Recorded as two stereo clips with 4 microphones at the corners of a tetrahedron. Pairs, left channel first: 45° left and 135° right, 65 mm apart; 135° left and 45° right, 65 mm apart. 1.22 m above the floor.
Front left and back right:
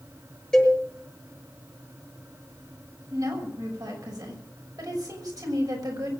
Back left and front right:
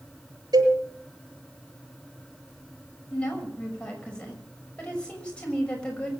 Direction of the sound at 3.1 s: 155° right.